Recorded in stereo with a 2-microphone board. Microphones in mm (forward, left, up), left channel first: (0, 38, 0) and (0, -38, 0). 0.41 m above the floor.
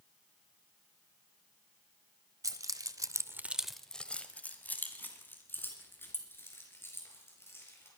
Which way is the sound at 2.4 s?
50° right (ahead or behind).